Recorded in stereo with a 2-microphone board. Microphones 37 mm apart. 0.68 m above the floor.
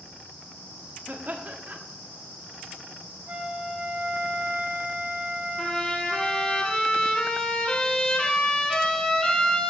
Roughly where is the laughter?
Right.